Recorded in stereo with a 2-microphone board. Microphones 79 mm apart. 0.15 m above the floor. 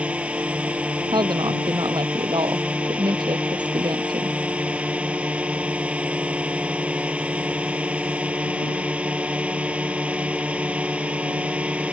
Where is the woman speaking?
70° right (ahead or behind).